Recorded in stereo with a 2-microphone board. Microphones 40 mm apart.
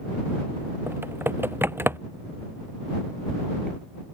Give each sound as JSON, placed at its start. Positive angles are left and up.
{"t": 0.9, "sound": "typing on a keyboard", "side_deg": -70}